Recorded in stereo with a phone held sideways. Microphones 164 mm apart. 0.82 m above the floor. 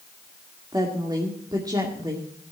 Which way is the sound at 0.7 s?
25° right (ahead or behind).